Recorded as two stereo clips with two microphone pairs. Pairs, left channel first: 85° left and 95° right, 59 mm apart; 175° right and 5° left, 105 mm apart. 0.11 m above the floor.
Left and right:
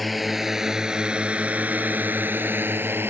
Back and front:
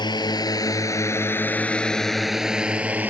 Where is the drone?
175° left; by 3.1 s 65° right.